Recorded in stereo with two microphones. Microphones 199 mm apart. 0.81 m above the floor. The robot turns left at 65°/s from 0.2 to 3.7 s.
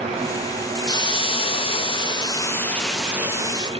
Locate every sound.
0.9 s a hiss: 20° left (ahead or behind), 0.8 m; by 3.7 s 20° right (ahead or behind), 0.8 m